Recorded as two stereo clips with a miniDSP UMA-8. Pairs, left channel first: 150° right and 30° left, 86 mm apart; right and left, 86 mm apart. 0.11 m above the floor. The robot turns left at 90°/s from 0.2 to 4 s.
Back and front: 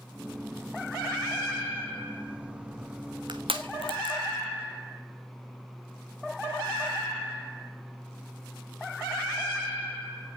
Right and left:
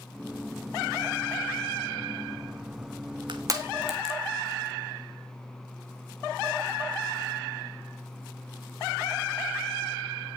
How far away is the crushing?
About 1.9 m.